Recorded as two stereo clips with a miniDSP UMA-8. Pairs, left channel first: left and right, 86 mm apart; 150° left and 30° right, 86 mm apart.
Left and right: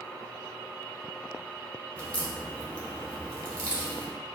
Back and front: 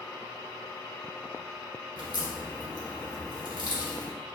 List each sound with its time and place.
2.0 s a crack: 160° left, 1.4 m